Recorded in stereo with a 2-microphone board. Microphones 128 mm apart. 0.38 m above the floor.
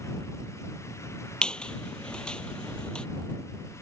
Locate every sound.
1.4 s a squeak: 5° left (ahead or behind)